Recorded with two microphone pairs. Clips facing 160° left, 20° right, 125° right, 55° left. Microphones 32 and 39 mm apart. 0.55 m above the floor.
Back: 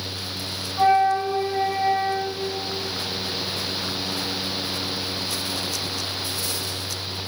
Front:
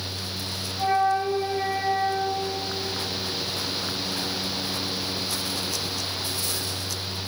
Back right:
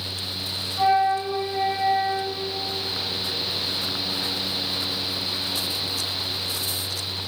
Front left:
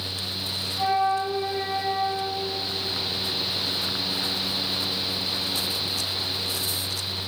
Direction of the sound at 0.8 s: 165° left.